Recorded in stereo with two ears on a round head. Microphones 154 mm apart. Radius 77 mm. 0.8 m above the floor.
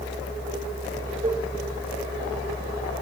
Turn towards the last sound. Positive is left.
turn(degrees=-40)  # may be behind; listen again after turning